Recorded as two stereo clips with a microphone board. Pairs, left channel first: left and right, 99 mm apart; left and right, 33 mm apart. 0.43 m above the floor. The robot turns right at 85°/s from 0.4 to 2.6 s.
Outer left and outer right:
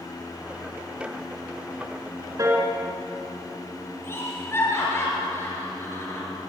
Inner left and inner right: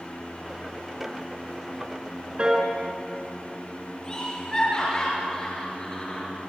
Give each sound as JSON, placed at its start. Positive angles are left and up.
{"t": 2.4, "sound": "a piano", "side_deg": -35, "distance_m": 3.5}
{"t": 4.0, "sound": "laughter", "side_deg": 25, "distance_m": 8.0}